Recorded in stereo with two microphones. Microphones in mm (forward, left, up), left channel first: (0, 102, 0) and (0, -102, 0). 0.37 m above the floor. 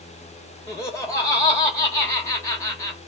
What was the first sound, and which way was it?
Laughter, 15° left (ahead or behind).